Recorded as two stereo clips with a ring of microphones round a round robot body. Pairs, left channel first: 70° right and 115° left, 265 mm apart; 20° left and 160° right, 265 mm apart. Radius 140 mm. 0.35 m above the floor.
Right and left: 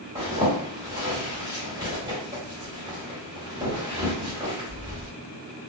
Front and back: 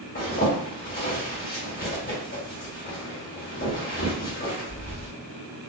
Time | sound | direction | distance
0.1 | a zipper | 45° left | 1.6 m